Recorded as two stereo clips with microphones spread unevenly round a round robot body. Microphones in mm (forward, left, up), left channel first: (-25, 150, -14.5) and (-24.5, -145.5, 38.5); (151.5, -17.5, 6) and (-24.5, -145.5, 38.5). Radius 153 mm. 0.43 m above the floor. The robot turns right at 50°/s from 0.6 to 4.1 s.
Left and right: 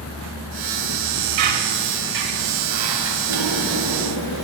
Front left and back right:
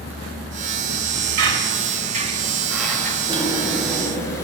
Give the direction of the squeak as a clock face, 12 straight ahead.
4 o'clock.